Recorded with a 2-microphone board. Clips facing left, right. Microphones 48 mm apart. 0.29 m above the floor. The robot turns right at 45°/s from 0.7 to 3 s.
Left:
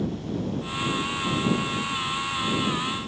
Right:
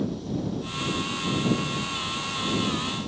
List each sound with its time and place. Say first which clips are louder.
0.0 s an insect: even; 170° left; by 3.1 s 85° right